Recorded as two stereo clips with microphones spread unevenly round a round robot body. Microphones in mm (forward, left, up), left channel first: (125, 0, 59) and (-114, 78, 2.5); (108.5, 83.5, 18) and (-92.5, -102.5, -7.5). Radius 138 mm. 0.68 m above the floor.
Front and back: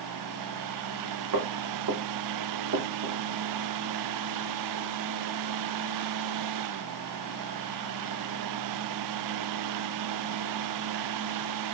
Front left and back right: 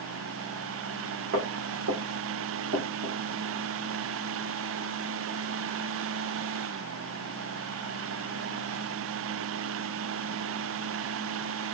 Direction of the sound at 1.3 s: 170° left.